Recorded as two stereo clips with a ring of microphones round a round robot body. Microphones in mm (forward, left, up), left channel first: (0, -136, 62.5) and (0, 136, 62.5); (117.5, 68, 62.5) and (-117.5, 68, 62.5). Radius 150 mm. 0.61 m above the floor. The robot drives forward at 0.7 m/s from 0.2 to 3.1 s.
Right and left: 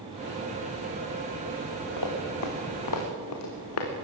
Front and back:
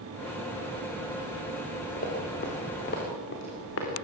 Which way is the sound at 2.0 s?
65° right.